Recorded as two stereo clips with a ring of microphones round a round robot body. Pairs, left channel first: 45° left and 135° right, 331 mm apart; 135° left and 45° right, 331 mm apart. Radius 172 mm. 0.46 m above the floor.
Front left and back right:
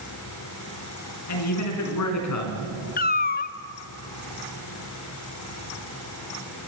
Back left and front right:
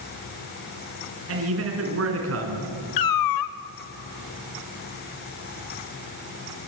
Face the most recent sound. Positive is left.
turn(degrees=110)